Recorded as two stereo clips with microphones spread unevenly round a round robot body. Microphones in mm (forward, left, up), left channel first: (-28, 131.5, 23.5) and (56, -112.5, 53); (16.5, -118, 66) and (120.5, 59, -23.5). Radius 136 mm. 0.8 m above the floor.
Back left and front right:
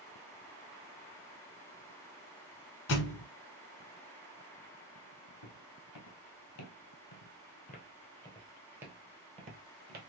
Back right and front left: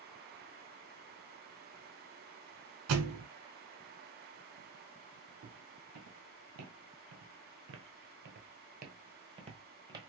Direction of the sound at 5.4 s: 110° left.